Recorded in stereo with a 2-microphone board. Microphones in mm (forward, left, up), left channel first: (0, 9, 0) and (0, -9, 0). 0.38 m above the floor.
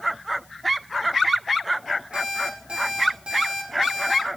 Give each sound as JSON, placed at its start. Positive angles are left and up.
{"t": 2.1, "sound": "an alarm clock", "side_deg": -75, "distance_m": 6.0}